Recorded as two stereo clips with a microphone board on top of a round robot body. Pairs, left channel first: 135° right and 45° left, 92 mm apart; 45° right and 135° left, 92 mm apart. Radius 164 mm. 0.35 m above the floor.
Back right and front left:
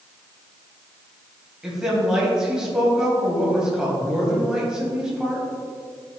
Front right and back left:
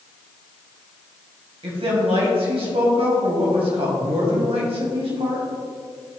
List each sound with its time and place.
1.6 s a woman speaking: 125° left, 3 m